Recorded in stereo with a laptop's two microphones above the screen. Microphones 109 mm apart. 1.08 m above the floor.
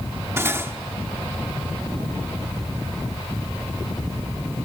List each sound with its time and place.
0.4 s cutlery clinking: 25° right (ahead or behind), 1.1 m